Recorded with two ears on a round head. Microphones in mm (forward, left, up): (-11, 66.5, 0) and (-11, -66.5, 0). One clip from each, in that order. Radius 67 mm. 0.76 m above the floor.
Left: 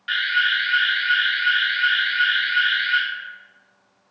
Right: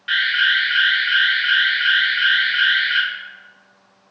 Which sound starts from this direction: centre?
An alarm, at 0.1 s.